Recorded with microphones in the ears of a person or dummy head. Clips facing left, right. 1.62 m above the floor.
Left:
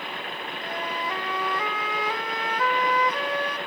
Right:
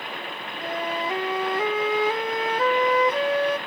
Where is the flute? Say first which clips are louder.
Right 5 dB; 20° right (ahead or behind), 0.5 m.